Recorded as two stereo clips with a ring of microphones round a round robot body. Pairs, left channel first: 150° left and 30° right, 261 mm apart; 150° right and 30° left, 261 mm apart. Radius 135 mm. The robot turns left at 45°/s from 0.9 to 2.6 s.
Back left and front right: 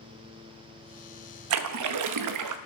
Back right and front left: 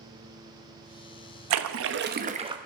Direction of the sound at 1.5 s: 5° left.